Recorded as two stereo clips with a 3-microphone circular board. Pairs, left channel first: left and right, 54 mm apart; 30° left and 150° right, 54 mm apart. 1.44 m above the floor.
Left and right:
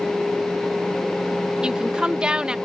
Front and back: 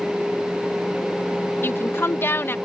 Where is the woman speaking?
15° right.